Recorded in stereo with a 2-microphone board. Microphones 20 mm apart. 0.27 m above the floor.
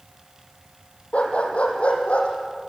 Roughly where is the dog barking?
Left.